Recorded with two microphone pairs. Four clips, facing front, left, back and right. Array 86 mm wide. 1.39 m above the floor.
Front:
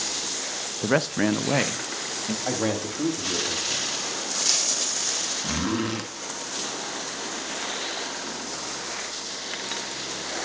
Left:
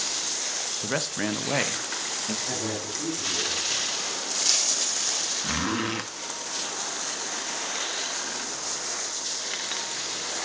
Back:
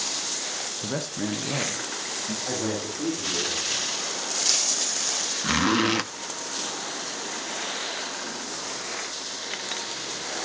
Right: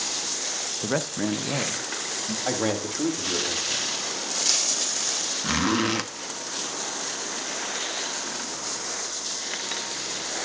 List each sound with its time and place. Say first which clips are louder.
0.8 s a man speaking: right 3 dB, front 8 dB; 5° left, 0.7 m; by 2.4 s 65° left, 1.1 m
2.5 s a man speaking: right 9 dB, front 3 dB; 55° right, 3.5 m
5.4 s a zipper: right 5 dB, back 4 dB; 160° right, 0.8 m